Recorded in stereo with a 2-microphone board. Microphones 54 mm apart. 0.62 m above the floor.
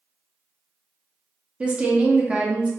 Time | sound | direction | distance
1.6 | a woman speaking | 20° right (ahead or behind) | 0.5 m